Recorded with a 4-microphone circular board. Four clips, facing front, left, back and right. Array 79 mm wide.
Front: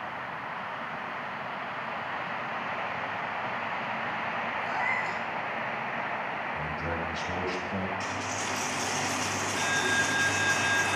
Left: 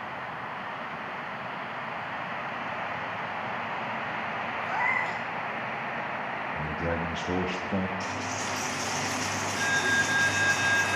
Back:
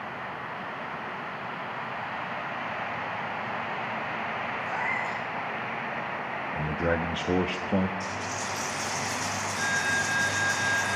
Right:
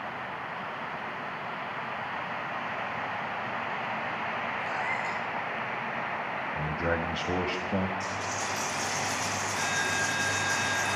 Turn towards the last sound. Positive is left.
turn(degrees=30)